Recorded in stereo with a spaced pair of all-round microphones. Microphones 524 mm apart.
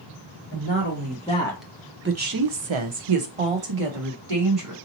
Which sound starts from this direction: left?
A woman speaking, at 0.5 s.